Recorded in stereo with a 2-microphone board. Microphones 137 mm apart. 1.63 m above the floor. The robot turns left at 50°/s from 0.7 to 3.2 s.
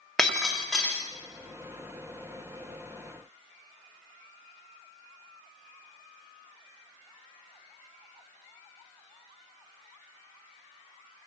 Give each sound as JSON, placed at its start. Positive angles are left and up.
{"t": 0.2, "sound": "breaking glass", "side_deg": 0, "distance_m": 1.5}